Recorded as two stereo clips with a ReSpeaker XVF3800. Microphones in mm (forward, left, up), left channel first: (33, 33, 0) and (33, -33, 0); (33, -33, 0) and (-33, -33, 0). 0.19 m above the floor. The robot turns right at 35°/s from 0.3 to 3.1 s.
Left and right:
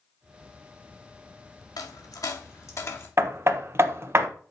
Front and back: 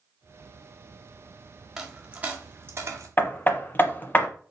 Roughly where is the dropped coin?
Left.